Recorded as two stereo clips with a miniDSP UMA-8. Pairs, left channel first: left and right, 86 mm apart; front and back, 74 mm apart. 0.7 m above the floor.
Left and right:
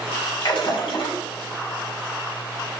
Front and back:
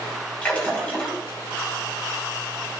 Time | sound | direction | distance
0.4 | a splash | 75° left | 4.5 m